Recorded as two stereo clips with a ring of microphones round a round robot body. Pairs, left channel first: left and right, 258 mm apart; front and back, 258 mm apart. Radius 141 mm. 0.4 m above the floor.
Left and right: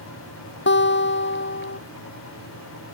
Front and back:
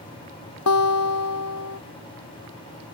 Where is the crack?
I don't hear a crack.